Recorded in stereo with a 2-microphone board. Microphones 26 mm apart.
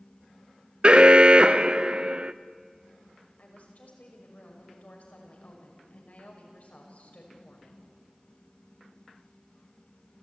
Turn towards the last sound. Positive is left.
turn(degrees=65)  # may be behind; listen again after turning